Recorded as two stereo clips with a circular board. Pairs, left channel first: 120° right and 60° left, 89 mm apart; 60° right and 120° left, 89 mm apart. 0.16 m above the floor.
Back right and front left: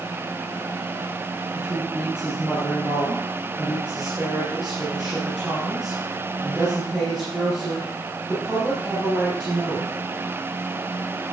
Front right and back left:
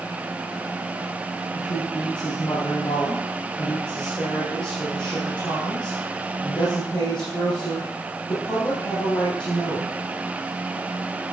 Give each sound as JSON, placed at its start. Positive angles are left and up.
{"t": 1.5, "sound": "a woman speaking", "azimuth_deg": -25, "distance_m": 6.0}